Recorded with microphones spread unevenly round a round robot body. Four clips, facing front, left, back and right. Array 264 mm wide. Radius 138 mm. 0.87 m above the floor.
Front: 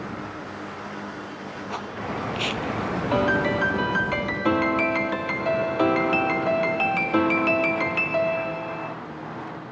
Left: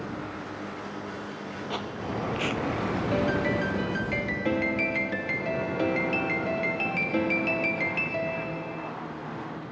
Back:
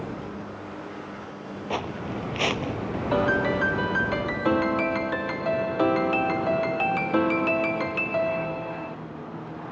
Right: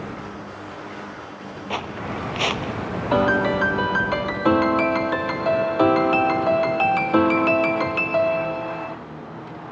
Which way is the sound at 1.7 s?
Straight behind.